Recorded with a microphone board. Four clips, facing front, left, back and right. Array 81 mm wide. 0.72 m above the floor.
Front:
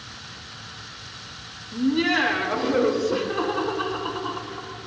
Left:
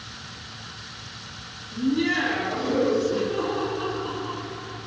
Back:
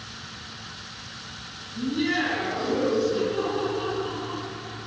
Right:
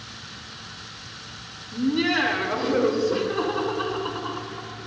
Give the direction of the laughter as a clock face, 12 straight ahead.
1 o'clock.